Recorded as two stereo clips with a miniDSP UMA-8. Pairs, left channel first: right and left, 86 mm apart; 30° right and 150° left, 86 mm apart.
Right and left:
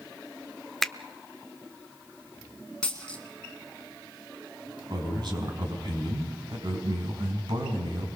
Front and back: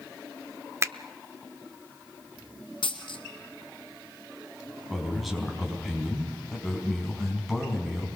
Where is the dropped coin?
10° right, 2.5 m.